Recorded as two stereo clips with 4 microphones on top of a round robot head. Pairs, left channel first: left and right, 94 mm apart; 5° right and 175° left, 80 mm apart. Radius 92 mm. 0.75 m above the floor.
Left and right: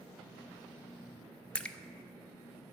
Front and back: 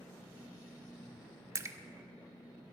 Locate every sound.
1.6 s a splash: 160° left, 0.5 m